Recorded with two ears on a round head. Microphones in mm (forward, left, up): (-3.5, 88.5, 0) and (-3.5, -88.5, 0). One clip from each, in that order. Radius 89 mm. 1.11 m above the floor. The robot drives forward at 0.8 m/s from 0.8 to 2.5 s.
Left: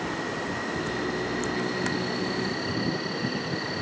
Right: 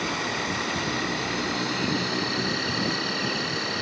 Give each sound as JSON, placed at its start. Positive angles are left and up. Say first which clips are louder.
{"t": 0.0, "sound": "an insect", "louder": "right 3 dB", "side_deg": -75, "distance_m": 3.0}